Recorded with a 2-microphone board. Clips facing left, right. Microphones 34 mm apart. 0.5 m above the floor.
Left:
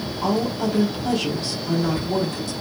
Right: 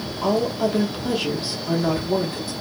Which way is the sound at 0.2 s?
10° right (ahead or behind).